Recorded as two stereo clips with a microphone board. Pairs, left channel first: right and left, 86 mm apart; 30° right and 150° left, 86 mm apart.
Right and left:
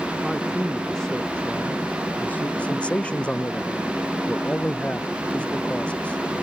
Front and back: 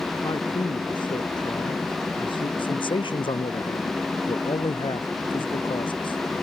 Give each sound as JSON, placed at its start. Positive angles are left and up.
{"t": 0.2, "sound": "a man speaking", "azimuth_deg": 0}
{"t": 2.6, "sound": "a man speaking", "azimuth_deg": -15}